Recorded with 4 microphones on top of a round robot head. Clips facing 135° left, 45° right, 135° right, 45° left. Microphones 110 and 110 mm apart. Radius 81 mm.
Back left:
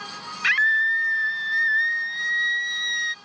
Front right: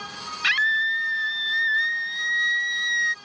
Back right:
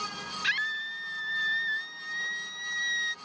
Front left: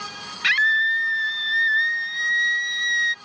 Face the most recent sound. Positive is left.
turn(degrees=60)